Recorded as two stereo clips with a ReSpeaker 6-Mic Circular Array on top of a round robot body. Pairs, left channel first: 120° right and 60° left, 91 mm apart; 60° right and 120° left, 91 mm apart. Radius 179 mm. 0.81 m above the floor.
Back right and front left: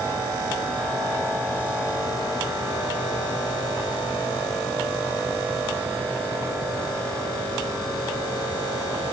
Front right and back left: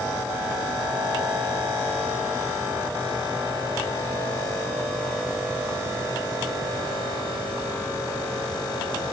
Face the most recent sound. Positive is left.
No sound to turn to.